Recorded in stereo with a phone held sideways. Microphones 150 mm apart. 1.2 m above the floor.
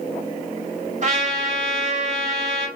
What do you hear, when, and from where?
1.0 s a trumpet: 50° right (ahead or behind), 3 m